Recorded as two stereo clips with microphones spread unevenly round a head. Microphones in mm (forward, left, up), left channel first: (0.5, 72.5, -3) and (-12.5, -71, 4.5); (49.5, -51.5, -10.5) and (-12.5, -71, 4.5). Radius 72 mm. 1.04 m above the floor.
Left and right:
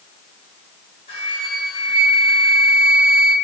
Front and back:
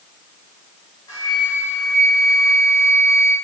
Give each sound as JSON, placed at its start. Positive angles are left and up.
{"t": 1.1, "sound": "a flute", "azimuth_deg": 50, "distance_m": 1.0}